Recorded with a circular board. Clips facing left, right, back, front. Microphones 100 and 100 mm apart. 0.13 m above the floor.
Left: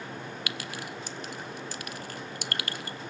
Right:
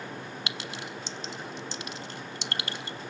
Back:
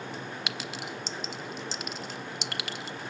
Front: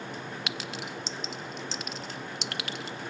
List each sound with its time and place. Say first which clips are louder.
0.5 s a clink: even, even; 95° right, 0.7 m